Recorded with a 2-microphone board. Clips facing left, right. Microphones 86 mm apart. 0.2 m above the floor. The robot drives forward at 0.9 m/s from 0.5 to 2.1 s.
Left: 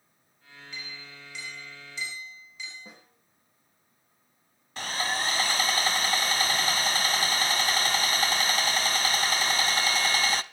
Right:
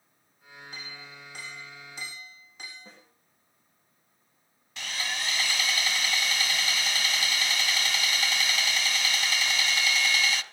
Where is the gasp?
No gasp in this recording.